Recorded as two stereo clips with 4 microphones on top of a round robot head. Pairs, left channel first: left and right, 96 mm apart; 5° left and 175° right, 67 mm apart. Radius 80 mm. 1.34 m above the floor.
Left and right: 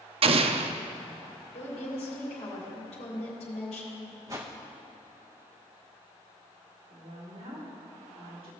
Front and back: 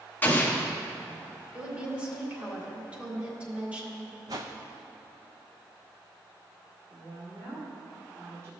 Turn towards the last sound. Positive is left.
turn(degrees=-125)